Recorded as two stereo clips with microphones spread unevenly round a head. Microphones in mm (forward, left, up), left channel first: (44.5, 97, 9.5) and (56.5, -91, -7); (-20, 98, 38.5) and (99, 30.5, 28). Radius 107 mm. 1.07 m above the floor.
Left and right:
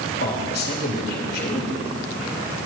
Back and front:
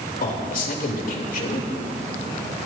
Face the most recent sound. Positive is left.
turn(degrees=145)